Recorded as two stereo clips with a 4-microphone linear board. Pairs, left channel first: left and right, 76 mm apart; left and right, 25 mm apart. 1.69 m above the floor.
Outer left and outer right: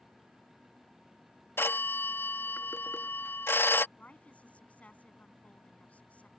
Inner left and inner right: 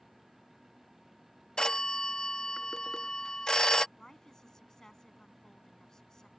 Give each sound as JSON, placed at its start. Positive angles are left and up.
{"t": 1.6, "sound": "a phone ringing", "side_deg": 30}
{"t": 4.0, "sound": "a woman speaking", "side_deg": 15}